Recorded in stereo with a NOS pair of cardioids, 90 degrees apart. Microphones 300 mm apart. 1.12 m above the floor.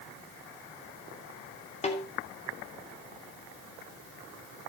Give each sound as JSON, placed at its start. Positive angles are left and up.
{"t": 1.8, "sound": "a snare drum", "azimuth_deg": 20, "distance_m": 3.5}